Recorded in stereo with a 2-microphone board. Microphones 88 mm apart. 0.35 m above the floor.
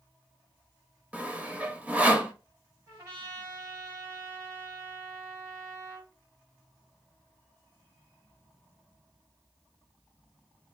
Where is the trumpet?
35° right (ahead or behind), 3 m.